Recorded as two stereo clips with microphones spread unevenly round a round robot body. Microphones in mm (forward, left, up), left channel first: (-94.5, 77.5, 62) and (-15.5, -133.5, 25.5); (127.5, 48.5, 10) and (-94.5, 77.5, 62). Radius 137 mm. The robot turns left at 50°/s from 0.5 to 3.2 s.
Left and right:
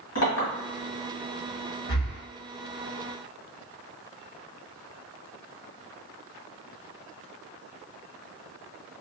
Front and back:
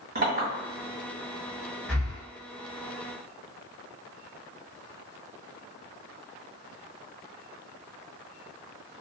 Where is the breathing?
85° left, 1.3 m; by 2.2 s 65° left, 1.3 m.